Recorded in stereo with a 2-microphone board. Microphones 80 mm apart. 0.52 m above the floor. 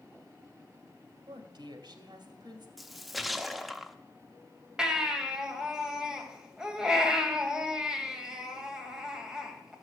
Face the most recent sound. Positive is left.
turn(degrees=-10)  # may be behind; listen again after turning